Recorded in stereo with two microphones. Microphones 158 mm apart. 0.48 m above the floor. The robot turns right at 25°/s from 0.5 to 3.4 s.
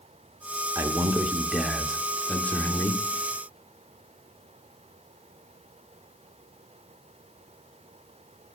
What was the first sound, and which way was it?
A man speaking, 25° right.